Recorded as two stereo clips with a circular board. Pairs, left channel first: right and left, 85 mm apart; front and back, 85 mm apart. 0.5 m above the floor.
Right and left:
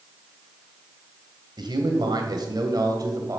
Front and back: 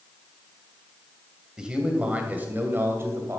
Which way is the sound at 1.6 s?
100° left.